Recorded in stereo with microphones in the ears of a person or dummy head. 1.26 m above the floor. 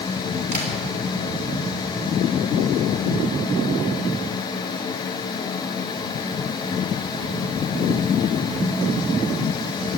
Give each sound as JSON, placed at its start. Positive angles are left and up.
{"t": 0.5, "sound": "tapping", "side_deg": -40, "distance_m": 4.5}